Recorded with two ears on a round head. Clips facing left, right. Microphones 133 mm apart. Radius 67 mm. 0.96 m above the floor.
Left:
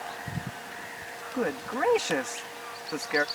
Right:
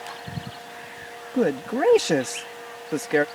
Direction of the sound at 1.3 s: 40° right (ahead or behind).